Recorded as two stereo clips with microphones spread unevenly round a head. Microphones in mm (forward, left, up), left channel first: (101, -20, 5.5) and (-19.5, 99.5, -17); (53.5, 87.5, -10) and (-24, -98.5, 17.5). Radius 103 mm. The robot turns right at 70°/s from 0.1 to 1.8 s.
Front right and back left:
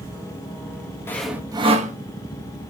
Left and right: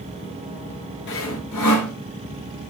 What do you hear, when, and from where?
1.1 s sawing: 30° left, 0.6 m; by 1.9 s 85° left, 0.6 m